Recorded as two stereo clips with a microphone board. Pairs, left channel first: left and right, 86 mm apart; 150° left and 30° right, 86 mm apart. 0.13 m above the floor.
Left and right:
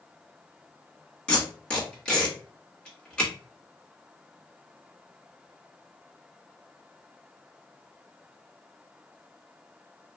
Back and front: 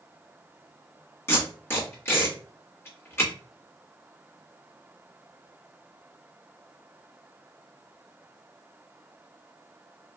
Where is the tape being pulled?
155° left, 1.6 m.